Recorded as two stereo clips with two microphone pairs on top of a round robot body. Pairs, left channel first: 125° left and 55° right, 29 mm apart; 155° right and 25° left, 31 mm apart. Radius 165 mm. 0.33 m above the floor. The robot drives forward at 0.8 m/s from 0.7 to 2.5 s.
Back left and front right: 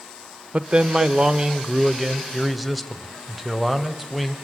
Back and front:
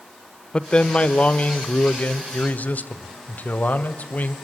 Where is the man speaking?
105° right, 1.4 m; by 4.3 s 145° right, 2 m.